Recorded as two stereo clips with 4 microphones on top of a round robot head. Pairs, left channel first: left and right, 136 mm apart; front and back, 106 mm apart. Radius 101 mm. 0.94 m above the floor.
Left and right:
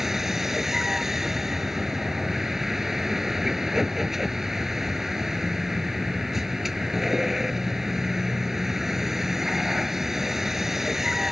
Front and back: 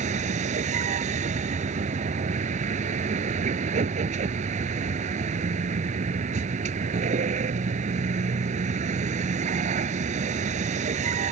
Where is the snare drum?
No snare drum in this recording.